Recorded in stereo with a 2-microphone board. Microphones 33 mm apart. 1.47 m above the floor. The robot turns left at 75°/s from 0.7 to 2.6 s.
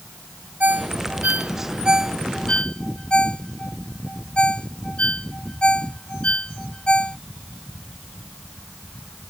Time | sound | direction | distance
0.6 | a ringtone | 65° right (ahead or behind) | ?